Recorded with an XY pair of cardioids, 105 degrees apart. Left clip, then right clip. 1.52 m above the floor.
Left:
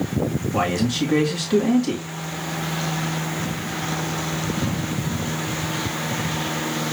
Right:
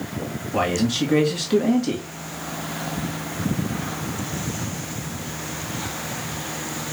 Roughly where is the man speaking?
Ahead.